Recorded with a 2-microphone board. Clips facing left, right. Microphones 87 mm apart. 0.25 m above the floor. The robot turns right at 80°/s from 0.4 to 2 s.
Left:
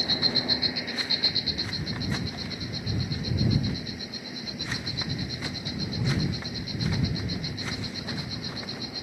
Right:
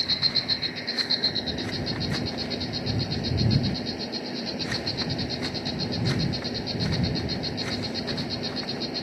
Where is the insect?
145° left; by 9.0 s 85° right.